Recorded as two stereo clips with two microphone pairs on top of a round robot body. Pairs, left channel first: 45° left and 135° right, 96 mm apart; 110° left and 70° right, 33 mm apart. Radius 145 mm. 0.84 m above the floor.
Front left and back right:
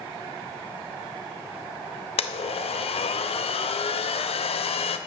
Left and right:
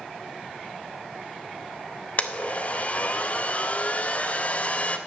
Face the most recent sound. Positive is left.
turn(degrees=60)